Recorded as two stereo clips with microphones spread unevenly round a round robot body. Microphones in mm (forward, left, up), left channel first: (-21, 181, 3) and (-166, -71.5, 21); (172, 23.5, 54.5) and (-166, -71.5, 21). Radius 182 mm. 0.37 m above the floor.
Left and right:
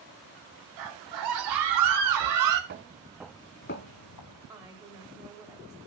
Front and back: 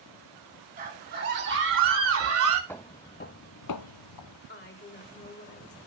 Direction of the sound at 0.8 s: 100° right.